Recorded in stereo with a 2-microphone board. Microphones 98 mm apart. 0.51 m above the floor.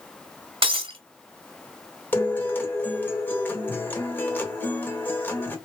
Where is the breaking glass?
70° right (ahead or behind), 1.0 m.